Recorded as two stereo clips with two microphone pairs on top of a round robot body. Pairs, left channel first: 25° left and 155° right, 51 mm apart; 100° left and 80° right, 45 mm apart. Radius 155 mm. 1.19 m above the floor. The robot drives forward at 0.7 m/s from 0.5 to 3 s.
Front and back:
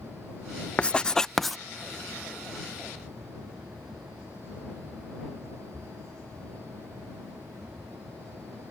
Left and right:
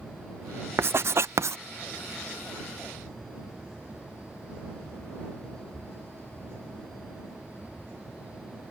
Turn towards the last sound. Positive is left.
turn(degrees=-120)